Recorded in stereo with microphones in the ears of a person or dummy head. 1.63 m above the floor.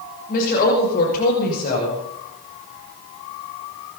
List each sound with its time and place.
0.3 s a woman speaking: 50° left (ahead or behind), 6 m